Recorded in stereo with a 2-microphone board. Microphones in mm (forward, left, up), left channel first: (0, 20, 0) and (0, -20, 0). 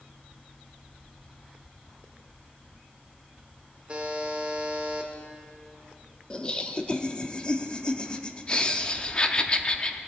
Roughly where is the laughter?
Left.